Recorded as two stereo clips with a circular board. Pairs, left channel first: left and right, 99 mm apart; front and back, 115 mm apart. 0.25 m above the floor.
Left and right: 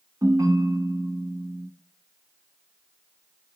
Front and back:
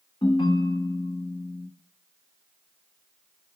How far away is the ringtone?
About 1.0 m.